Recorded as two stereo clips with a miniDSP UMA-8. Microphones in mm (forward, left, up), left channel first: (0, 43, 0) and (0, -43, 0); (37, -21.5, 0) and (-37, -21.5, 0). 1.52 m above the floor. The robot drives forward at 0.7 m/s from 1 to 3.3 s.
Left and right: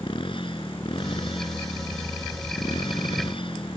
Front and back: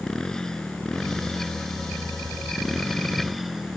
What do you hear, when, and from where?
0.0 s a motorcycle: 85° left; by 3.8 s 90° left